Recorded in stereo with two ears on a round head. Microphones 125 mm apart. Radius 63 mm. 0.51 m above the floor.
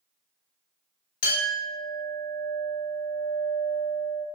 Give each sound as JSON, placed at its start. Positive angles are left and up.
{"t": 1.2, "sound": "a clink", "side_deg": 60, "distance_m": 1.3}